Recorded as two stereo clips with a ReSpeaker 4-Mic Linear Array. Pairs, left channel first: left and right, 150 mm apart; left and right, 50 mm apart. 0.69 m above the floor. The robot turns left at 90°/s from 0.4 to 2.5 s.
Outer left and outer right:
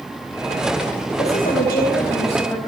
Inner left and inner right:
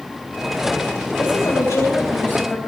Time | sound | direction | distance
1.2 | a woman speaking | 140° left | 4 m